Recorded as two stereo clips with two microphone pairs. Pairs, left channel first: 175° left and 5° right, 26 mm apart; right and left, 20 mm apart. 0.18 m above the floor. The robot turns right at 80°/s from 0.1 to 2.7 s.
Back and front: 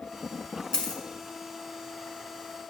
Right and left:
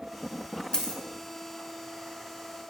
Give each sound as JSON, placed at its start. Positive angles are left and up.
{"t": 0.7, "sound": "a dropped coin", "azimuth_deg": -140, "distance_m": 1.0}